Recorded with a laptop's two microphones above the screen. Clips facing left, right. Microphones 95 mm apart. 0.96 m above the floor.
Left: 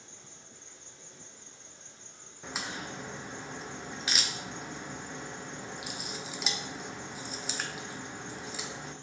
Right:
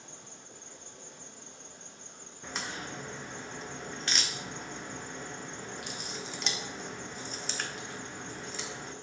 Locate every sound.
0.0 s an insect: 60° right (ahead or behind), 0.9 m
2.4 s a crack: 5° left (ahead or behind), 0.9 m